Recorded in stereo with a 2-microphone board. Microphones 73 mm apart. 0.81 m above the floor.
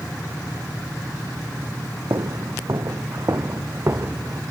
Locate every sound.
2.1 s footsteps: 60° right (ahead or behind); by 4.4 s 30° right (ahead or behind)